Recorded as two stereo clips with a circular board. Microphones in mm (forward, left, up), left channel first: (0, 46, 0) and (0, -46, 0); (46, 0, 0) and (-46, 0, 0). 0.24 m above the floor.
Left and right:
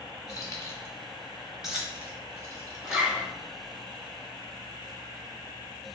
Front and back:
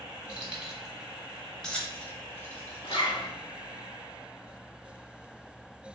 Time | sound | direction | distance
0.3 | keys jangling | 110° left | 1.1 m
2.8 | a zipper | 10° right | 0.8 m